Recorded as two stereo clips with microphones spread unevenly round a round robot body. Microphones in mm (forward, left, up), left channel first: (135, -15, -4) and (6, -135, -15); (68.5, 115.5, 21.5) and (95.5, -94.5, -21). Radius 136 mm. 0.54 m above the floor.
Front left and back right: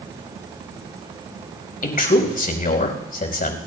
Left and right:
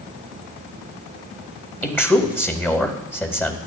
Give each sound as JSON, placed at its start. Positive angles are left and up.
{"t": 1.8, "sound": "a man speaking", "azimuth_deg": 10, "distance_m": 4.0}